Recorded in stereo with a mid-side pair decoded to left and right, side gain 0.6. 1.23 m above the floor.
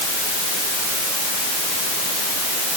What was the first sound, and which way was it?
Only background noise.